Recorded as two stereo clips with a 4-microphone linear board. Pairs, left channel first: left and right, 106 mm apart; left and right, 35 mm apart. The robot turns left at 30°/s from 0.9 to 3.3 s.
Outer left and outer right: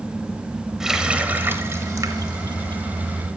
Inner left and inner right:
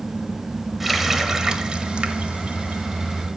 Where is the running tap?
5° right (ahead or behind), 1.0 m; by 2.8 s 50° right (ahead or behind), 1.0 m.